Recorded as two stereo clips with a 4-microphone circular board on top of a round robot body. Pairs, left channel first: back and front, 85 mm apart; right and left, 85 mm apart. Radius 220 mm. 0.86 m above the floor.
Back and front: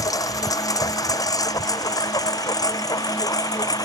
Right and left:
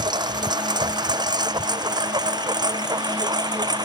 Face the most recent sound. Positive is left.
turn(degrees=130)